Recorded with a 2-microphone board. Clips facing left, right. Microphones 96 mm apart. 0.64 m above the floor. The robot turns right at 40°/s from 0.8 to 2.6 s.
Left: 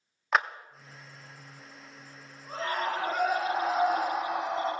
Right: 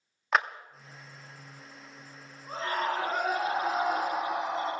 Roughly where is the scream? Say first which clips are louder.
Even; centre.